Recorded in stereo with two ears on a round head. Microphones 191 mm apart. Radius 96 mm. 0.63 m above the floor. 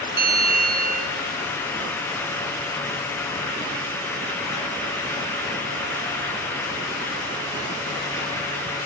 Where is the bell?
50° right (ahead or behind), 2.5 m.